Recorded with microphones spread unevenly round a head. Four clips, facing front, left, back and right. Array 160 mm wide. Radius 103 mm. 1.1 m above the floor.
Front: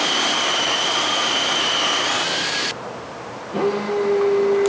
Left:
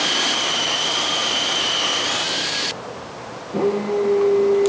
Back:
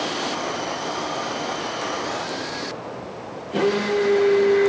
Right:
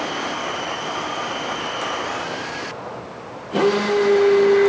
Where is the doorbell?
I don't hear a doorbell.